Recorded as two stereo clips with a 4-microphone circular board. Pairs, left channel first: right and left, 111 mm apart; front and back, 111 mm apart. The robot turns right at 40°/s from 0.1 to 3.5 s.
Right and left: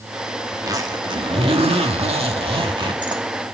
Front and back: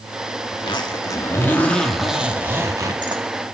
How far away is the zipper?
About 2 m.